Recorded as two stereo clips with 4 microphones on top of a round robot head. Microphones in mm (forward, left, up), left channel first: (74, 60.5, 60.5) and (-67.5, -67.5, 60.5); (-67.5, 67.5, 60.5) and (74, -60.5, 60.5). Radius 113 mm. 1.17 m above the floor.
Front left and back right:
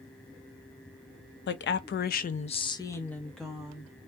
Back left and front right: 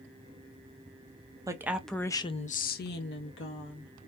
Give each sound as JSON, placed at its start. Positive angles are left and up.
{"t": 1.5, "sound": "a woman speaking", "azimuth_deg": 30, "distance_m": 0.7}